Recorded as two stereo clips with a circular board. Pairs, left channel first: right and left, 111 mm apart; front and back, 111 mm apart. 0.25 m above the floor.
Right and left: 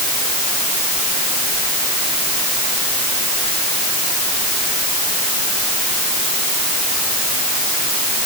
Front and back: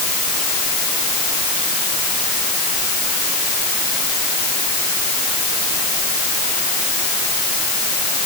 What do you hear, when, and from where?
Only background noise.